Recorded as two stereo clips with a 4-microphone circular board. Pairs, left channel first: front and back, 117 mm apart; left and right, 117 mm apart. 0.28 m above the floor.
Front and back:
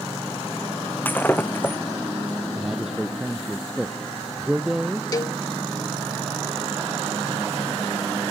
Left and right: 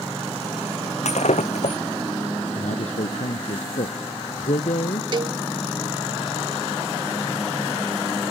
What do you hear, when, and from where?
1.1 s breaking glass: 75° left
2.5 s a man speaking: 95° left
5.1 s a cowbell: 50° right